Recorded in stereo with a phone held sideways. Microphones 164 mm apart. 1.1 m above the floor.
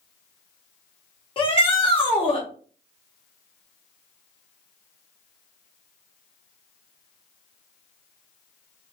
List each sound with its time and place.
1.4 s a shout: 30° left (ahead or behind), 0.8 m